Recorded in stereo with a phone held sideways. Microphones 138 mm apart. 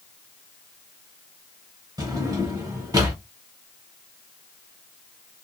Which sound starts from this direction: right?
A drawer, at 2.0 s.